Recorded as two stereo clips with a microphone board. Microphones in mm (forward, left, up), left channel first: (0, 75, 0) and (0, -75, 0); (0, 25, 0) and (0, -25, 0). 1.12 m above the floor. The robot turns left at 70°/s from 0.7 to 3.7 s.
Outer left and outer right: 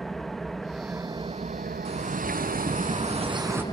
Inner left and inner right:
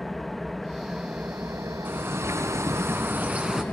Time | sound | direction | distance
0.0 | an engine running | straight ahead | 0.7 m
1.9 | a bird | 40° right | 3 m